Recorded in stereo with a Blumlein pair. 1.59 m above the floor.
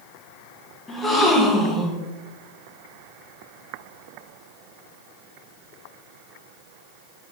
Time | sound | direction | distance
0.9 | a gasp | 10° left | 0.9 m